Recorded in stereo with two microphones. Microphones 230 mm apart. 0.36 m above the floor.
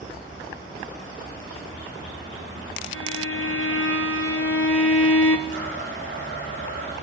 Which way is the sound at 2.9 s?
85° left.